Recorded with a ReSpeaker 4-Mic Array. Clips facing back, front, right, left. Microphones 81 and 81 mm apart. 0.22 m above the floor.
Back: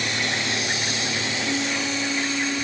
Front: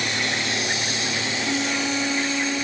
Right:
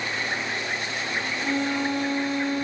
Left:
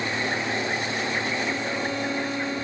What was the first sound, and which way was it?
A violin, 65° right.